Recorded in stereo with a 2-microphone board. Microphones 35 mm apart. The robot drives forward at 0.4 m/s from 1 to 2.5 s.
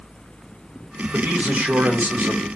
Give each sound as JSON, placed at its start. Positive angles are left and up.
{"t": 1.1, "sound": "a man speaking", "side_deg": -50, "distance_m": 1.4}